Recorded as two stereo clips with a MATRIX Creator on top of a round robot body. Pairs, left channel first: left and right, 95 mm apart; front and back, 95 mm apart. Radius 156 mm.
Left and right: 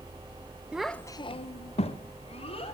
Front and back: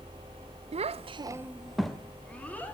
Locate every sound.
0.7 s a child speaking: 170° right, 0.6 m; by 2.8 s 75° left, 1.9 m